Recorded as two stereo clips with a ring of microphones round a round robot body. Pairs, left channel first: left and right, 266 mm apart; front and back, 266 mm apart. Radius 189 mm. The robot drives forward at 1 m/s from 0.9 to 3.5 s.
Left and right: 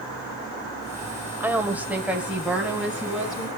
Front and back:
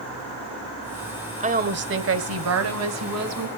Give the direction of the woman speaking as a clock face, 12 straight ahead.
5 o'clock.